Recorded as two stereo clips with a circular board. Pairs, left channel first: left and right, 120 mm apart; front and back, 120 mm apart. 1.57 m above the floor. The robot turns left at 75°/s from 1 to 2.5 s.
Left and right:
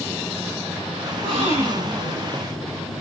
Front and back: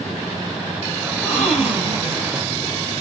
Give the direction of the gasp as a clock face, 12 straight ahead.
2 o'clock.